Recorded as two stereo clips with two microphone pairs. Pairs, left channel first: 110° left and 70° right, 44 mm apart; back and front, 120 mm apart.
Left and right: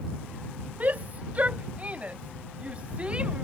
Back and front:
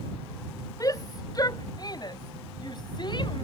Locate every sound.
0.8 s a shout: 120° right; by 3.5 s 130° right